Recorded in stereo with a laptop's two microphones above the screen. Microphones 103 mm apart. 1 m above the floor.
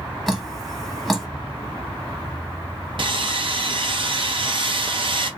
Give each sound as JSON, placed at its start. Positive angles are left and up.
{"t": 0.3, "sound": "dripping", "side_deg": 0, "distance_m": 1.2}
{"t": 3.0, "sound": "sawing", "side_deg": -55, "distance_m": 0.6}